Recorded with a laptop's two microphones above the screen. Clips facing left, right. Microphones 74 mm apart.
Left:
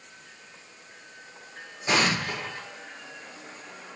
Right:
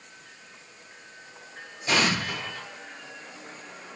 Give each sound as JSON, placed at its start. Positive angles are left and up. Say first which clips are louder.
{"t": 1.9, "sound": "an explosion", "louder": "even", "side_deg": 20, "distance_m": 0.8}